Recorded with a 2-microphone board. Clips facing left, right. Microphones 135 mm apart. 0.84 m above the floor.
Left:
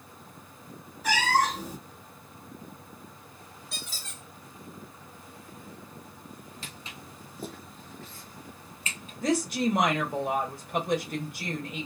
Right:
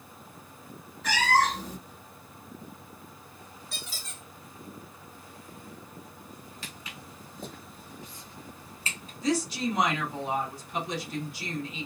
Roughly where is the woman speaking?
Left.